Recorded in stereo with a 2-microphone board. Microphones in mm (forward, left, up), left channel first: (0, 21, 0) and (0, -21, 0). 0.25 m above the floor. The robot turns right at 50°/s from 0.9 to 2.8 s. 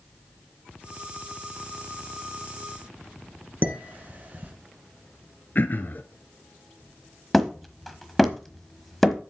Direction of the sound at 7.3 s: 5° left (ahead or behind).